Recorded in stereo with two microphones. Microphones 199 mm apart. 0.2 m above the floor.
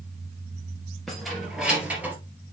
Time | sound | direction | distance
1.1 | keys jangling | centre (ahead or behind) | 3 m